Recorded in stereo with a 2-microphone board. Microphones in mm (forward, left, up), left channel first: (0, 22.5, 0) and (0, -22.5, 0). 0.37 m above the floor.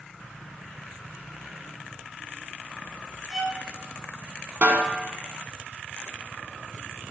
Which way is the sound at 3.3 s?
15° left (ahead or behind).